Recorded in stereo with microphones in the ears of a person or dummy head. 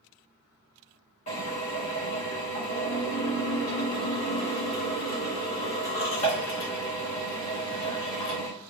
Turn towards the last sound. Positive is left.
turn(degrees=35)  # may be behind; listen again after turning